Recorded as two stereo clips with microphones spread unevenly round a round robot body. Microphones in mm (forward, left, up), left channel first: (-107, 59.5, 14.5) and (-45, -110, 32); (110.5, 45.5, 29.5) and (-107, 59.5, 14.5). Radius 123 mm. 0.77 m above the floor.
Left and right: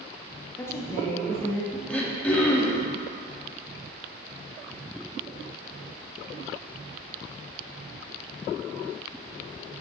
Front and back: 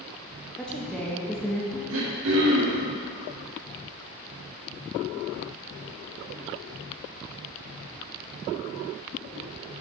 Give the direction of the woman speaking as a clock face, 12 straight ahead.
9 o'clock.